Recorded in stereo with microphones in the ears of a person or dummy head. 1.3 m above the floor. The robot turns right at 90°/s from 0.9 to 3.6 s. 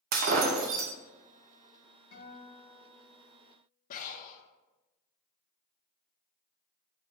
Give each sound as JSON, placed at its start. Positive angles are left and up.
{"t": 0.1, "sound": "breaking glass", "side_deg": -40, "distance_m": 0.6}
{"t": 2.1, "sound": "a guitar", "azimuth_deg": 85, "distance_m": 3.0}
{"t": 3.9, "sound": "breathing", "side_deg": 45, "distance_m": 0.7}